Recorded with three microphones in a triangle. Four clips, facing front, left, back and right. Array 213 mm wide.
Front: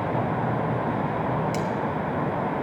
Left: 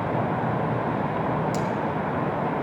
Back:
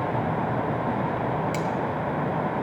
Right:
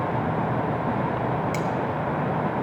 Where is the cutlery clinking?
170° left, 1.4 m.